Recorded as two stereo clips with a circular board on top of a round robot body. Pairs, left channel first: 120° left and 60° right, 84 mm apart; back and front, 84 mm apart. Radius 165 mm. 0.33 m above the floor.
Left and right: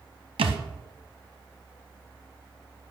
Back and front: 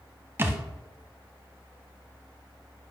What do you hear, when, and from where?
0.4 s a thud: 65° right, 1.1 m